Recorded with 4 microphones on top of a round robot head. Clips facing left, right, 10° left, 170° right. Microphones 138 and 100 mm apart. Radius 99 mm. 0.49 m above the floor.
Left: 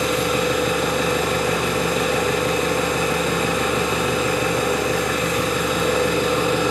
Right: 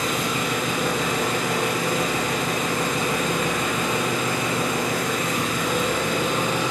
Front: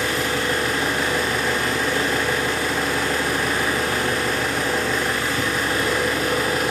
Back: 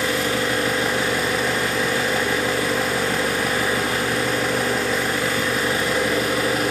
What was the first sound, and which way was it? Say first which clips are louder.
An engine running: left 5 dB, back 1 dB; 100° left.